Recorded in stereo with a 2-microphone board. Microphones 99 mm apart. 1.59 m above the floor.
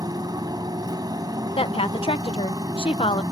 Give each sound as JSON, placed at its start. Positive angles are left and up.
{"t": 0.0, "sound": "a motorcycle", "side_deg": -40}
{"t": 1.6, "sound": "a woman speaking", "side_deg": 70}